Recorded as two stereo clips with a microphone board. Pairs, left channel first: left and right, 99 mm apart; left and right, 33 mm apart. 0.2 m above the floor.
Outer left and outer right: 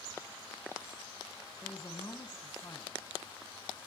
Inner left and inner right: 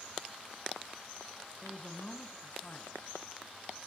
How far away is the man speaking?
About 1.5 m.